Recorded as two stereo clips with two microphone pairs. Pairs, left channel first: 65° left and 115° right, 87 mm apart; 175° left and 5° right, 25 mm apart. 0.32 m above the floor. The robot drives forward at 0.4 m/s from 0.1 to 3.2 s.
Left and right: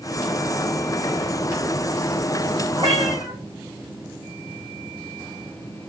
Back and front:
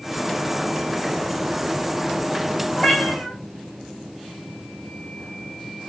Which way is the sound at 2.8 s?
140° right.